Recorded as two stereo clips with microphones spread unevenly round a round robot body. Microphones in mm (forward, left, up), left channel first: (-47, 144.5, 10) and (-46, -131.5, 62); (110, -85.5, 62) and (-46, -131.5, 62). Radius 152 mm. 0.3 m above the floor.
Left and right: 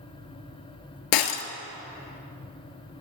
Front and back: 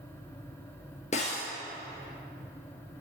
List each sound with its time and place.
1.1 s breaking glass: 85° left, 0.9 m